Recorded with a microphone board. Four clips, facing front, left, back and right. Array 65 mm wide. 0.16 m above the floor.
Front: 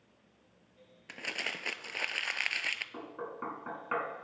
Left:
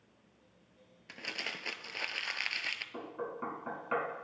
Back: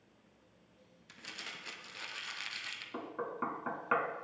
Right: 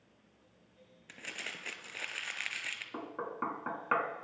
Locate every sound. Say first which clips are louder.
1.1 s crumpling: left 3 dB, front 10 dB; 15° left, 0.5 m
2.9 s knocking: right 1 dB, back 2 dB; 110° right, 1.4 m